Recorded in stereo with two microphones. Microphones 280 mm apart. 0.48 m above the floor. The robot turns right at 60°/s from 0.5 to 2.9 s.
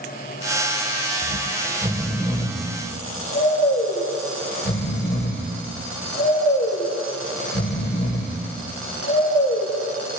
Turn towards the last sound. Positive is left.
turn(degrees=40)  # may be behind; listen again after turning